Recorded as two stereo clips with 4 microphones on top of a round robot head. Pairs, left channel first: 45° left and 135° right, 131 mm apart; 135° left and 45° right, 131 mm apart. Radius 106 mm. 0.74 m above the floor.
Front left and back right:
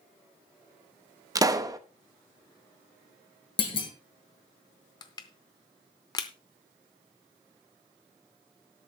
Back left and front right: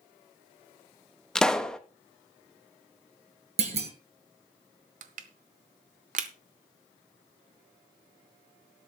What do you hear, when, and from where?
1.4 s a pop: 150° right, 1.0 m
3.6 s a clunk: 5° right, 1.8 m
5.0 s crushing: 15° right, 0.6 m